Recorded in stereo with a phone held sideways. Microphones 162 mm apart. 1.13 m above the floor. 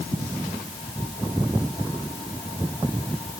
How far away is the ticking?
I don't hear ticking.